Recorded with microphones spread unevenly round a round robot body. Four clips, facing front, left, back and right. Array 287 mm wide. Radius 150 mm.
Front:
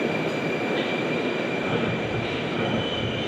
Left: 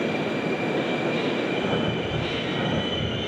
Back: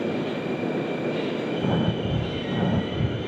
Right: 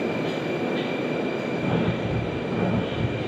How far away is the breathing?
About 4 m.